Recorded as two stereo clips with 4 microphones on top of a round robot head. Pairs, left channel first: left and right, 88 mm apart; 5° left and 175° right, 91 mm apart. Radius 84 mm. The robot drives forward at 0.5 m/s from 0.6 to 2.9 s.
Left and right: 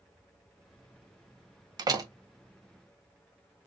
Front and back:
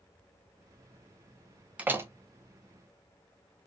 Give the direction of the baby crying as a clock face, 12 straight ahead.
No baby crying in this recording.